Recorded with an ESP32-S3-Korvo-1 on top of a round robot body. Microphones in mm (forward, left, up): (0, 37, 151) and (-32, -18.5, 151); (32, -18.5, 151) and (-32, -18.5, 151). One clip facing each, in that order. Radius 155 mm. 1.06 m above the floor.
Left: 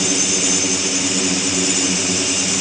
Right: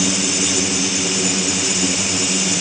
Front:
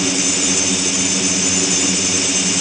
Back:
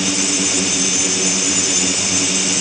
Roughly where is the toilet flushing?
No toilet flushing in this recording.